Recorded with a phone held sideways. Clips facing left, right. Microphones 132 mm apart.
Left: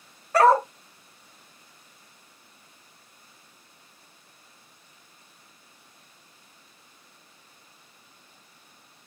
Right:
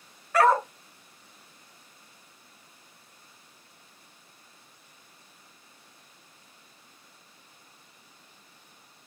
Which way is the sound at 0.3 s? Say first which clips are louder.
Left 3 dB; 35° left (ahead or behind).